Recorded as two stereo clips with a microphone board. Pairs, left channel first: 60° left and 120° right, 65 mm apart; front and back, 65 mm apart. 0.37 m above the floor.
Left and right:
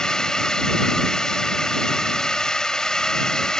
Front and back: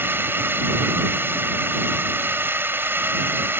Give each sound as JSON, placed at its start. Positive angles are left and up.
{"t": 0.0, "sound": "a drone", "azimuth_deg": 135}